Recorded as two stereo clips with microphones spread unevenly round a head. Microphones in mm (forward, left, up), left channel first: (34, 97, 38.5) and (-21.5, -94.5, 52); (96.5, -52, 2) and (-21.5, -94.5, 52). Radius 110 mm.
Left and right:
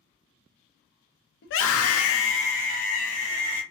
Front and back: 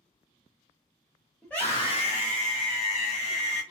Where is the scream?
110° left, 0.7 m; by 3.6 s 5° left, 1.4 m.